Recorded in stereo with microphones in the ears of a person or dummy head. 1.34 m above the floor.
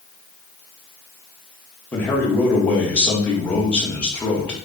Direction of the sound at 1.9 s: 10° left (ahead or behind).